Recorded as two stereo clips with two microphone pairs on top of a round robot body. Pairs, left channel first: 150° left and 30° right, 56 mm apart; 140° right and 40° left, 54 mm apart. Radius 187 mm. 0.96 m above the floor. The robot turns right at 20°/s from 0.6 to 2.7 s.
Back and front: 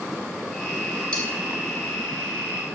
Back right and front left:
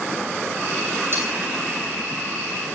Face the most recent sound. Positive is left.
turn(degrees=110)